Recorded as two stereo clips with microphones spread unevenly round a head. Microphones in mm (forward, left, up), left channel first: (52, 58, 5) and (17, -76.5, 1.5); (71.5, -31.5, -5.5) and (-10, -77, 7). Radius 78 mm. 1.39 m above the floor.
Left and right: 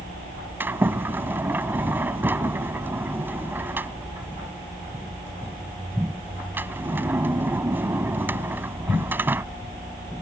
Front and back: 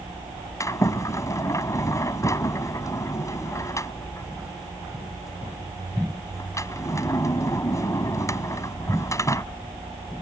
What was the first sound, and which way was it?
A sliding door, 30° right.